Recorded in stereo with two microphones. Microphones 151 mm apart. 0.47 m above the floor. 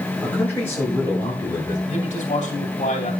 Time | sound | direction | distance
0.2 | a man speaking | 10° left (ahead or behind) | 6 m
1.9 | a man speaking | 45° left (ahead or behind) | 2.5 m